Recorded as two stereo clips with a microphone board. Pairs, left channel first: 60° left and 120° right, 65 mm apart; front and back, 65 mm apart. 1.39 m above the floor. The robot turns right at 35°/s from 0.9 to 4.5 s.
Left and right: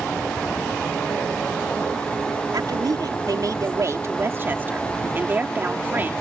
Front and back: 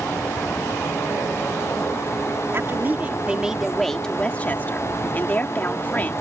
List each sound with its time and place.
2.5 s a woman speaking: 130° right; by 6.1 s 60° right